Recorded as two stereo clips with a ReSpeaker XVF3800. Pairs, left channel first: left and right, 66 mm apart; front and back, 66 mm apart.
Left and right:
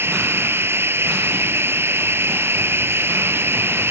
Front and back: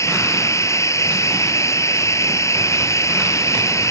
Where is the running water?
40° right.